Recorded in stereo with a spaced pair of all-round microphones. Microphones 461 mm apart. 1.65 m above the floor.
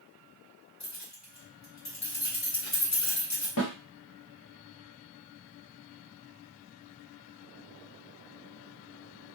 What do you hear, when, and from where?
0.8 s keys jangling: 35° left (ahead or behind), 0.9 m
3.6 s a snare drum: 45° left (ahead or behind), 0.8 m